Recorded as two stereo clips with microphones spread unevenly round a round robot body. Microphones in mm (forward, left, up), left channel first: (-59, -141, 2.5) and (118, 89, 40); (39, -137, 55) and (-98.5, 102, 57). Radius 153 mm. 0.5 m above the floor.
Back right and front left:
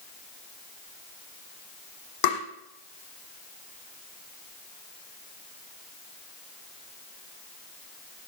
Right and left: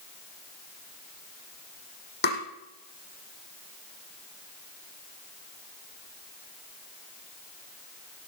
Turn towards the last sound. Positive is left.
turn(degrees=-115)